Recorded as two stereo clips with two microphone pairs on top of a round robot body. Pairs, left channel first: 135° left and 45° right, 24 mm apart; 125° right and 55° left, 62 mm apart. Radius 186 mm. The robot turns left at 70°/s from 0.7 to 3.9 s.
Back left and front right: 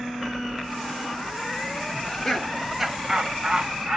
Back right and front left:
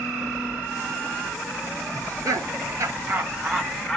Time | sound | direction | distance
1.9 | laughter | 85° left | 1.3 m